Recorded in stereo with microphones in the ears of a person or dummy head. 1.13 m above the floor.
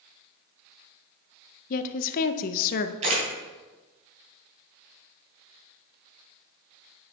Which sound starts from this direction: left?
A woman speaking, at 1.7 s.